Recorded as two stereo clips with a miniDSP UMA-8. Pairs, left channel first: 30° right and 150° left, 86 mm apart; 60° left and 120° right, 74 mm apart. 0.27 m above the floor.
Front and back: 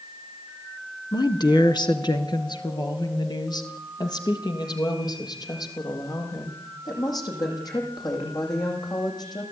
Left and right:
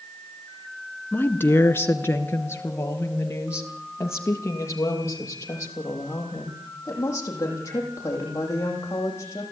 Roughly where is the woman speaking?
Ahead.